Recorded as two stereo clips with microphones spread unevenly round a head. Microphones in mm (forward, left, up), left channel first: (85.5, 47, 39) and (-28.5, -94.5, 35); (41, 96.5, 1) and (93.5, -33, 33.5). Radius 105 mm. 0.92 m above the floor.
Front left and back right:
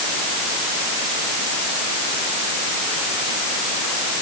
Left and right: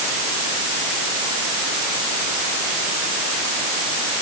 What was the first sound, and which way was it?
Only background noise.